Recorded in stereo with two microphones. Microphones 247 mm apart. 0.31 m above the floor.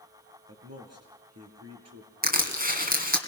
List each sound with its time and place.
0.5 s a man speaking: 70° right (ahead or behind), 4.5 m; by 2.1 s 75° right (ahead or behind), 6 m
2.2 s crushing: 35° right (ahead or behind), 2.5 m